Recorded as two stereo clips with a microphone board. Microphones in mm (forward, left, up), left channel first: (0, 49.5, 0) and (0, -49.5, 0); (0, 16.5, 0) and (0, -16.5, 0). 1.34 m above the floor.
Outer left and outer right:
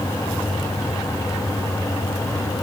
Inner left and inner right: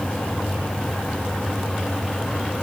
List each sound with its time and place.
Only background noise.